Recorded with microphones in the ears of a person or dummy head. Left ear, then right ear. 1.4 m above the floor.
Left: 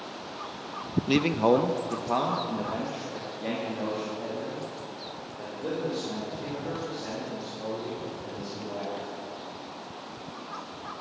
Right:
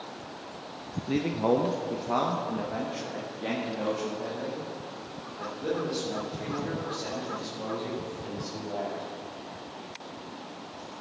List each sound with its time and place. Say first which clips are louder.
1.1 s a man speaking: left 3 dB; 40° left (ahead or behind), 0.6 m; by 9.0 s 10° right (ahead or behind), 6 m